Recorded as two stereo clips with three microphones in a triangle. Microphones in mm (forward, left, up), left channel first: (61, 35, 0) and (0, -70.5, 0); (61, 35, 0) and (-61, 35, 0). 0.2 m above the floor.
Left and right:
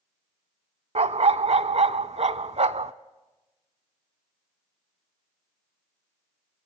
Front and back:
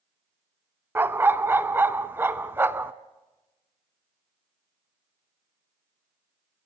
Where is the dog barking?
110° right, 0.6 m.